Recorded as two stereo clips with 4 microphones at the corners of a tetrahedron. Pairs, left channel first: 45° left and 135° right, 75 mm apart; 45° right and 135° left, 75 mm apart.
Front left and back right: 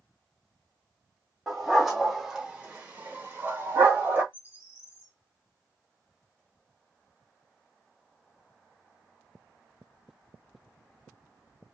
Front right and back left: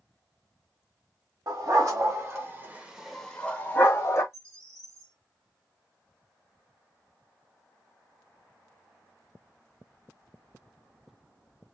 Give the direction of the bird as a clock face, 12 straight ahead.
9 o'clock.